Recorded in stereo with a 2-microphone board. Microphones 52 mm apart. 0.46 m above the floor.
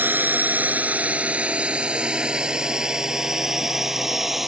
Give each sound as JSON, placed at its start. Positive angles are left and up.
{"t": 0.0, "sound": "a drone", "side_deg": -40}